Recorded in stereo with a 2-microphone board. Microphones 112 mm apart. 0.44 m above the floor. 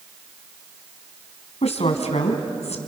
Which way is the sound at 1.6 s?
75° left (ahead or behind).